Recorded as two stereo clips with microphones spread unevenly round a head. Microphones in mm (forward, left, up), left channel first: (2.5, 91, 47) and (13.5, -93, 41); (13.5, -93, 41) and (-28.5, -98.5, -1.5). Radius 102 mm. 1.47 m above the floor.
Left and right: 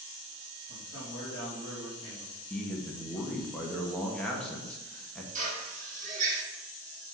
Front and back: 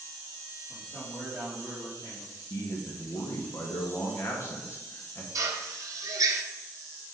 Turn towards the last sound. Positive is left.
turn(degrees=-130)